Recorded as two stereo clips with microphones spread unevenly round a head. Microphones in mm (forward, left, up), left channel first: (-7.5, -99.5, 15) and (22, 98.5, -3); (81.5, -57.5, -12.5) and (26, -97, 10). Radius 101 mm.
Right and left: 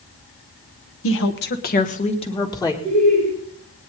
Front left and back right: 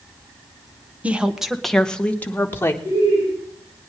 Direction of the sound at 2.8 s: 165° right.